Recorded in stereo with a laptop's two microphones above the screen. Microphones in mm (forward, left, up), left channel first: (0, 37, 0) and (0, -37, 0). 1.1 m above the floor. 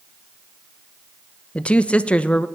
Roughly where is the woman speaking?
Centre.